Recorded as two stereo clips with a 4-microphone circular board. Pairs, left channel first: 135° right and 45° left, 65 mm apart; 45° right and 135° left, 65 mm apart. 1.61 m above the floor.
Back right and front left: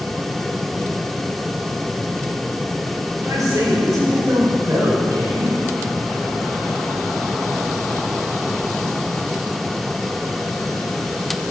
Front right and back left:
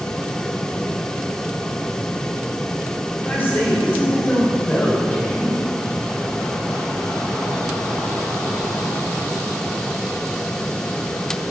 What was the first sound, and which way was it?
A man speaking, 15° left.